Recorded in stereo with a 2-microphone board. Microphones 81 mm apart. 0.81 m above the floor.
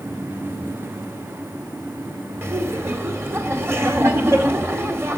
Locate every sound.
2.4 s laughter: 30° right (ahead or behind), 2 m